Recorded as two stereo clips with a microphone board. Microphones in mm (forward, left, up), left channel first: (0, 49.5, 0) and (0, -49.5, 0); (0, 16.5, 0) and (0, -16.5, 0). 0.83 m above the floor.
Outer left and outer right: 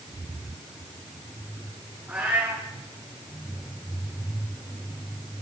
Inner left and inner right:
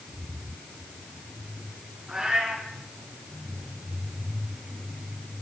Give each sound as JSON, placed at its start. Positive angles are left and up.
{"t": 2.1, "sound": "a cat meowing", "side_deg": -15, "distance_m": 8.0}